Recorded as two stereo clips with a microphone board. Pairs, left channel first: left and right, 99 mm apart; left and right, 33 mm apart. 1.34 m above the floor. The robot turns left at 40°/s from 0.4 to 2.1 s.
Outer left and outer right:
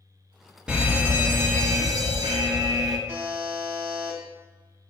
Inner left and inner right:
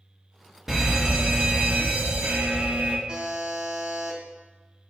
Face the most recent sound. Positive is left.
turn(degrees=-25)  # may be behind; listen again after turning